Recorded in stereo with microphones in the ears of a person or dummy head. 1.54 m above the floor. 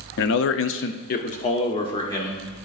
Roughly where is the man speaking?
Left.